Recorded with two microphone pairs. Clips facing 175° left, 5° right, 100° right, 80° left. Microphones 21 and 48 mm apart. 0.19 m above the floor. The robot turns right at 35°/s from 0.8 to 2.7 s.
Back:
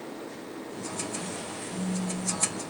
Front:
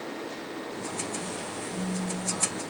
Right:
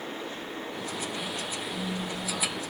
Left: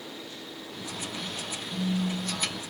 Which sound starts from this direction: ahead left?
A phone buzzing, at 1.7 s.